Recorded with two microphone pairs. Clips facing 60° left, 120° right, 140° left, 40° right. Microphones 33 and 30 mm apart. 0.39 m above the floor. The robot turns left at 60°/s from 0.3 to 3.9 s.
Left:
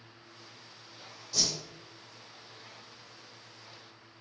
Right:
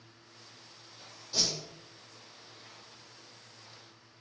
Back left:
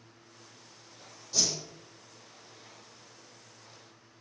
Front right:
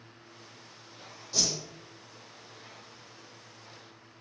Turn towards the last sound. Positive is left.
turn(degrees=110)